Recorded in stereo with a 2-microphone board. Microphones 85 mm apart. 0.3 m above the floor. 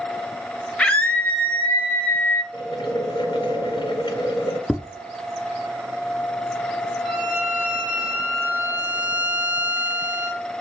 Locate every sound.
0.8 s a scream: 10° left (ahead or behind), 1.1 m; by 2.4 s 20° left (ahead or behind), 2 m
2.5 s boiling: 75° left (ahead or behind), 2.0 m
4.7 s tapping: centre (ahead or behind), 0.7 m
7.0 s a violin: 25° right (ahead or behind), 5 m